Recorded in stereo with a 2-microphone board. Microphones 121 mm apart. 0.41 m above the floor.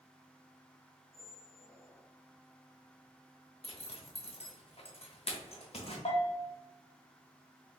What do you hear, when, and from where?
1.1 s a squeak: 20° left (ahead or behind), 0.7 m
3.6 s a zipper: 55° left (ahead or behind), 0.9 m
6.0 s a bell: 55° left (ahead or behind), 1.2 m